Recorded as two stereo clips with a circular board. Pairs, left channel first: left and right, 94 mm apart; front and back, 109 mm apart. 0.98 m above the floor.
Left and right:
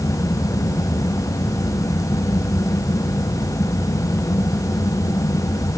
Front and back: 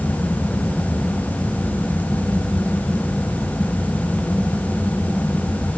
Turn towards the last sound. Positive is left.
No sound to turn to.